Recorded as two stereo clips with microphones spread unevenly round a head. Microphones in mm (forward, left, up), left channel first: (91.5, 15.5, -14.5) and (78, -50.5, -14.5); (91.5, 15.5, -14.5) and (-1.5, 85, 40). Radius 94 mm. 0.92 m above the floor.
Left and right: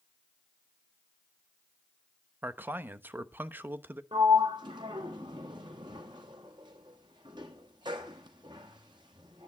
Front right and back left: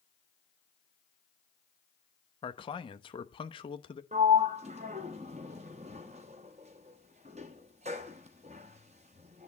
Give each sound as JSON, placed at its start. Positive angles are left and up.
{"t": 2.4, "sound": "a man speaking", "azimuth_deg": -45, "distance_m": 1.0}
{"t": 4.1, "sound": "a sliding door", "azimuth_deg": -155, "distance_m": 0.9}